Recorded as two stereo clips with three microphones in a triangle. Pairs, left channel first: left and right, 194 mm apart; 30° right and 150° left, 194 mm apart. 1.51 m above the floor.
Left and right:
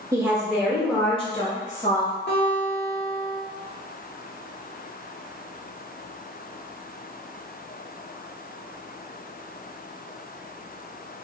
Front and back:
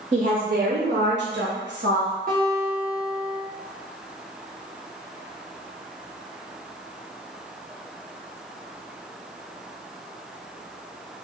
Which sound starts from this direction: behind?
A woman speaking, at 0.1 s.